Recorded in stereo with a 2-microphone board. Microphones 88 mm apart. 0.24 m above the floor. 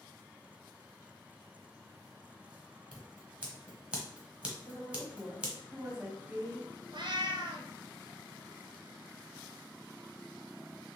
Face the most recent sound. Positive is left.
turn(degrees=-70)  # may be behind; listen again after turning